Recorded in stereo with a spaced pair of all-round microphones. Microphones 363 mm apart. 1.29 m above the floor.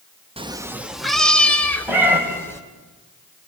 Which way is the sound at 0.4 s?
15° right (ahead or behind).